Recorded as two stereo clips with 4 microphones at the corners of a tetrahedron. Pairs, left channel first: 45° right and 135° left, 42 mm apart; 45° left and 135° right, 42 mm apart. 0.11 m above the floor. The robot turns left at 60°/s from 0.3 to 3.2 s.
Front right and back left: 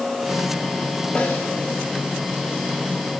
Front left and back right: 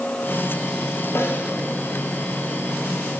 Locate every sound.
1.1 s a snare drum: 20° left, 7.5 m; by 1.5 s 5° right, 7.5 m